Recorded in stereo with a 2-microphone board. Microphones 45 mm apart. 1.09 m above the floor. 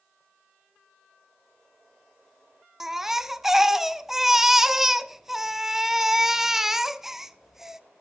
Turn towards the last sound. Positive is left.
turn(degrees=-5)  # may be behind; listen again after turning